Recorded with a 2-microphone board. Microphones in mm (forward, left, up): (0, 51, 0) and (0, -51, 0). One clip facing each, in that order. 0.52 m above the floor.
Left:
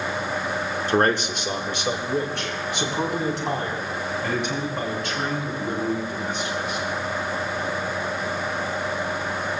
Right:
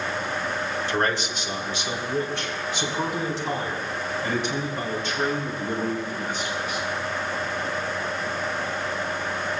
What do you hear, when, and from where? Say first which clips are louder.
0.9 s a man speaking: left 6 dB; 40° left (ahead or behind), 1.3 m; by 6.8 s 60° left (ahead or behind), 8.5 m